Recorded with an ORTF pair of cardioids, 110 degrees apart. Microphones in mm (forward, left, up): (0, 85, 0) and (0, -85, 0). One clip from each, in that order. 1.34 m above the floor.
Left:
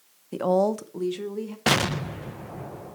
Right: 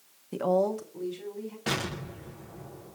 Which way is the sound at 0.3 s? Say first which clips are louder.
Left 3 dB; 10° left.